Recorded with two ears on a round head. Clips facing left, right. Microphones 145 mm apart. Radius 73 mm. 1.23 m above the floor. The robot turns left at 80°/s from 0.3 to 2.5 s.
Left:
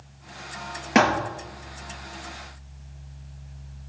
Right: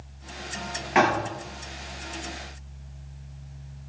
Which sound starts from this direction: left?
A thud, at 0.9 s.